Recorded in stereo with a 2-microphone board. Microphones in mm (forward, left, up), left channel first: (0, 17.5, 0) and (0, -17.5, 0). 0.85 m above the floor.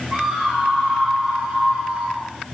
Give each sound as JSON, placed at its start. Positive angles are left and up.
{"t": 0.1, "sound": "a scream", "side_deg": -20, "distance_m": 7.5}